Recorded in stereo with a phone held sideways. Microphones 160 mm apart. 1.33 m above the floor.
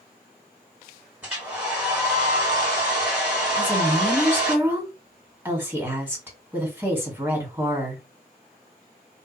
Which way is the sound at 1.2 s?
10° right (ahead or behind).